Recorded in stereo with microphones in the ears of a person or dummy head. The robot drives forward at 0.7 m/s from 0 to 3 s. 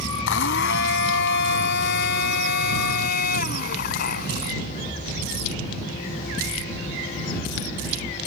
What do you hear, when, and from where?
0.3 s a blender: 70° left (ahead or behind); by 4.6 s 55° left (ahead or behind)